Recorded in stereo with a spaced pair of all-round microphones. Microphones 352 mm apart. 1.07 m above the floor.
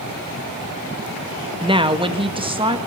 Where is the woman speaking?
15° right (ahead or behind), 1.3 m.